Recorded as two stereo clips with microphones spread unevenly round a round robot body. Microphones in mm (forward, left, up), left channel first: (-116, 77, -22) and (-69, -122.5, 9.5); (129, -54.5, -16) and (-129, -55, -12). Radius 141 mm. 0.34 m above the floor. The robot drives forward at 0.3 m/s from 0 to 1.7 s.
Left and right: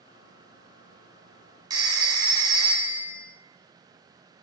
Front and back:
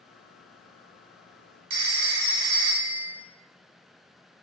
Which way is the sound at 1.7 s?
155° right.